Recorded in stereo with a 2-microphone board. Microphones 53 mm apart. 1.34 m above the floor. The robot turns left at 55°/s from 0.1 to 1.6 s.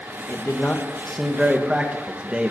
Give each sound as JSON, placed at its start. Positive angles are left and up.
{"t": 0.3, "sound": "a man speaking", "side_deg": 50, "distance_m": 1.7}